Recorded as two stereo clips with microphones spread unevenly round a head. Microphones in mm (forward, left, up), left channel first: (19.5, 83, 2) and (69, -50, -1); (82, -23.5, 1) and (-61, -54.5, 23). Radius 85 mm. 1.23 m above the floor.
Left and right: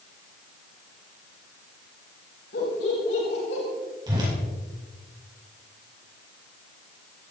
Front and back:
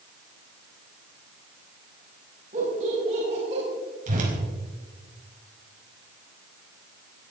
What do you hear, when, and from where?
2.5 s laughter: 140° left, 8 m
4.1 s a whoosh: 140° right, 5 m